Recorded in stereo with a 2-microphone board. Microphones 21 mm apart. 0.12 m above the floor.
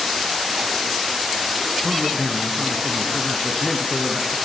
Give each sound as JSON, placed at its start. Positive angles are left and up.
{"t": 1.8, "sound": "a man speaking", "side_deg": -30, "distance_m": 1.6}